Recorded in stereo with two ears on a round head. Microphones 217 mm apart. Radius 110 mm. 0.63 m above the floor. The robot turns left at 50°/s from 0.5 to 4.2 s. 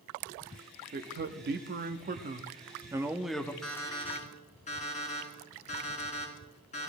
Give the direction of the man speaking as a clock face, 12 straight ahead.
2 o'clock.